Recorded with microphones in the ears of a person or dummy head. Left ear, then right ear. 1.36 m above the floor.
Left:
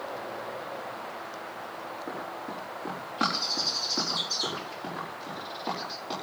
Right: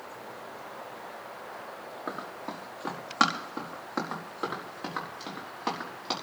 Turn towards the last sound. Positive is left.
turn(degrees=-55)  # may be behind; listen again after turning